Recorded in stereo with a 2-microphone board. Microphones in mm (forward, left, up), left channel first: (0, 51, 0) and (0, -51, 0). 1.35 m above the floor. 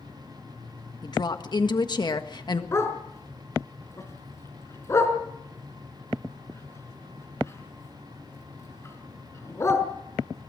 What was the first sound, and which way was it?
A woman speaking, 45° left (ahead or behind).